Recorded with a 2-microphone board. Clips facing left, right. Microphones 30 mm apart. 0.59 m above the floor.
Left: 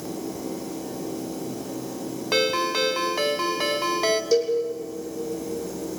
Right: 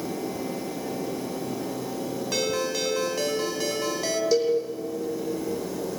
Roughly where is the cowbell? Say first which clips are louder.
Right 1 dB; centre.